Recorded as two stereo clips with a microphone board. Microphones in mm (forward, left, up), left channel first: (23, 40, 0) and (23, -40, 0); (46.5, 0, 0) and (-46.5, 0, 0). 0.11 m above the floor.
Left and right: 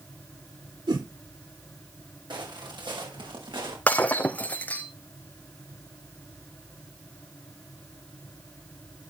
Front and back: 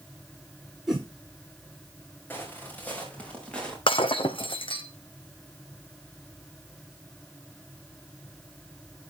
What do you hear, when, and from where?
0.9 s a whoosh: 95° right, 10 m
2.3 s footsteps: 65° right, 7 m; by 3.8 s 80° right, 8 m
3.9 s breaking glass: 20° left, 1.7 m